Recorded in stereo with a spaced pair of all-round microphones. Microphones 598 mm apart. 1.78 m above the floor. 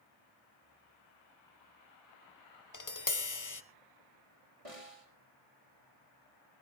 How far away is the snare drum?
About 3.5 m.